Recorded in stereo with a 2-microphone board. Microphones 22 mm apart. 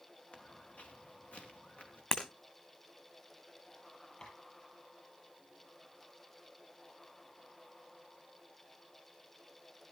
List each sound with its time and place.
0.3 s footsteps: 65° left (ahead or behind), 2.5 m; by 2.0 s 70° left (ahead or behind), 4 m
2.1 s breaking glass: 35° left (ahead or behind), 2.5 m
4.2 s tapping: 35° left (ahead or behind), 8 m